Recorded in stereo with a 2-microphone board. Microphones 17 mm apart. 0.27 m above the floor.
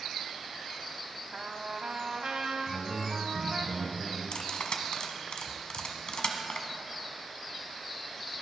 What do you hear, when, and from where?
1.3 s a trumpet: 50° right (ahead or behind), 0.8 m
2.7 s a man speaking: 15° right (ahead or behind), 3 m
4.3 s cutlery clinking: 60° left (ahead or behind), 1.3 m